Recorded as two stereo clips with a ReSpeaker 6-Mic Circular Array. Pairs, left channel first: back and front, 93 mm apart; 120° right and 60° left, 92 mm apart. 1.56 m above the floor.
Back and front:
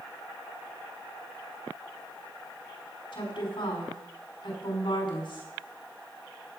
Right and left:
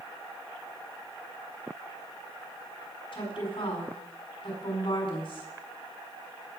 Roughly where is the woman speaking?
Behind right.